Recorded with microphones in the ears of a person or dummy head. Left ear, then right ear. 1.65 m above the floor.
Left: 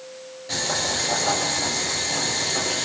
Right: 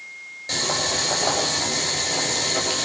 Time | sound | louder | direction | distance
0.5 | boiling | right 1 dB | 30° right (ahead or behind) | 9 m